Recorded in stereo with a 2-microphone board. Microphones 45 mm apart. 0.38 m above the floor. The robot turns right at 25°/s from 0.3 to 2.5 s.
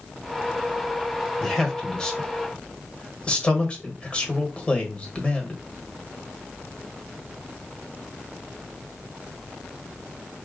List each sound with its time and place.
1.4 s a man speaking: 5° left (ahead or behind), 1.2 m; by 5.6 s 25° left (ahead or behind), 1.2 m